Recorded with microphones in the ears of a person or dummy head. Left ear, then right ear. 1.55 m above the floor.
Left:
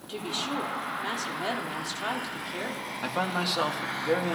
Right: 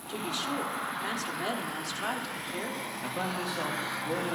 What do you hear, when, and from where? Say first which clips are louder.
0.1 s a woman speaking: left 1 dB; 5° left (ahead or behind), 1.4 m
3.0 s a man speaking: left 6 dB; 45° left (ahead or behind), 1.7 m